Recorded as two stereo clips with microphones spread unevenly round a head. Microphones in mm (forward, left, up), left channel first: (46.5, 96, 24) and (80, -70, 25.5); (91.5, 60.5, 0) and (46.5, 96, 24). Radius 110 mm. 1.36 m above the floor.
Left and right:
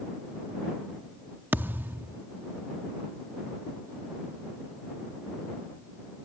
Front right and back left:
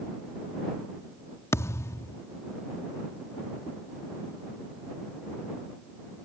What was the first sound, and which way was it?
A thud, 15° right.